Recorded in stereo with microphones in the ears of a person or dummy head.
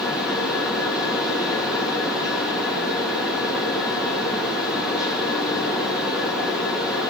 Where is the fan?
Centre (ahead or behind), 2.5 m.